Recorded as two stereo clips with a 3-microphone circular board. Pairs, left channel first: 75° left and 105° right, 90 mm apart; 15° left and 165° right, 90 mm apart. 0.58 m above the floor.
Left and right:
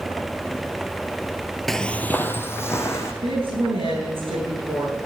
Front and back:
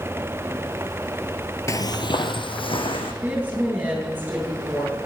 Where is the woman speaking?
90° right, 8 m.